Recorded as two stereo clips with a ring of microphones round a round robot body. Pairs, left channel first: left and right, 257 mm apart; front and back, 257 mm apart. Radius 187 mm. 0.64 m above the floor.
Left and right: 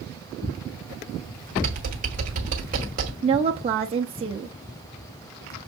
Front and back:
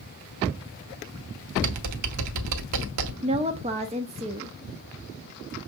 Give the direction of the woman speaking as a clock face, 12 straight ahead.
5 o'clock.